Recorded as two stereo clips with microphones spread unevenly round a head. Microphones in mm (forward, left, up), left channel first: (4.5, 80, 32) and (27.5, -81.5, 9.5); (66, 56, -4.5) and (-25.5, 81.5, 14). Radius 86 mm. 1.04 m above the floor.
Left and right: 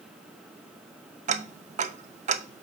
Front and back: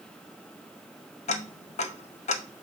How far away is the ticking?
About 0.6 m.